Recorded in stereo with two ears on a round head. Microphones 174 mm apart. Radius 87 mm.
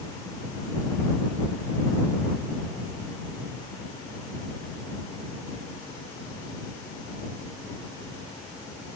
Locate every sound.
Only background noise.